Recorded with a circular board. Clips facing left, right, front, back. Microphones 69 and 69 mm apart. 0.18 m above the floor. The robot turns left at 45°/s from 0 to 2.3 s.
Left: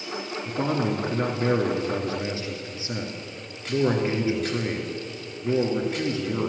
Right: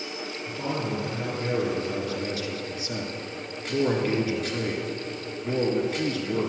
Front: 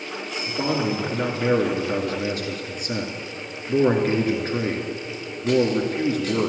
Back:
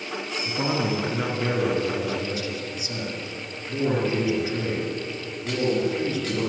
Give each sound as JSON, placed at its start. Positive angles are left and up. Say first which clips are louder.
{"t": 0.5, "sound": "a man speaking", "louder": "left 5 dB, front 2 dB", "azimuth_deg": 115, "distance_m": 2.5}